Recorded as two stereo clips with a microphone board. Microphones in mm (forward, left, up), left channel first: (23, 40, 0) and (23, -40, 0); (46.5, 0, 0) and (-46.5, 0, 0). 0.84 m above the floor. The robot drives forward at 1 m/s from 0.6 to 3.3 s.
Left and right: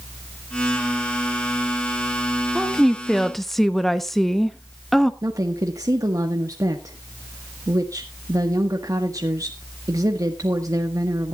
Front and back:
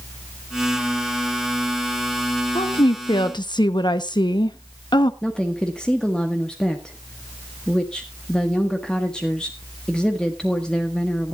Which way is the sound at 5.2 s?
80° right.